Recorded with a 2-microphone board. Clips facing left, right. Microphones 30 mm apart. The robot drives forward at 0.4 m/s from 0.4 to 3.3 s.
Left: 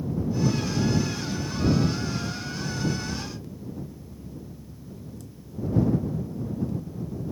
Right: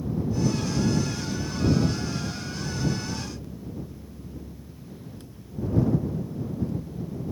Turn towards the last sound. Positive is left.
No sound to turn to.